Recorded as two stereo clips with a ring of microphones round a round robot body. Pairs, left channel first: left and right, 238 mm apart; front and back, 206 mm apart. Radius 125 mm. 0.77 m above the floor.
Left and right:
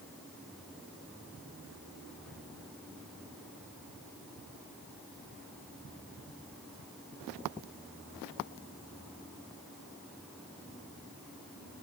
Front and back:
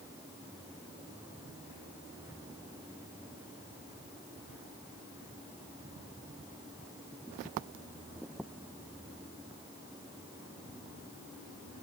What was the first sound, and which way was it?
Only background noise.